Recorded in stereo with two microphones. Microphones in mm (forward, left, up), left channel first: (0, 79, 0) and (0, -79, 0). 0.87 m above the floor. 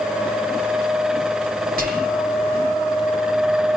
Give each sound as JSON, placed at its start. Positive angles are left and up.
{"t": 1.8, "sound": "whispering", "side_deg": -65, "distance_m": 1.6}